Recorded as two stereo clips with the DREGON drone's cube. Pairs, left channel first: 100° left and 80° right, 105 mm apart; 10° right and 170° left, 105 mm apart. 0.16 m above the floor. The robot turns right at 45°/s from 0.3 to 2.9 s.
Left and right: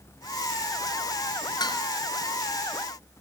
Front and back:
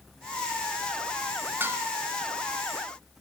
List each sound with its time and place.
1.6 s dishes clattering: 110° left, 1.3 m; by 1.8 s 120° left, 1.3 m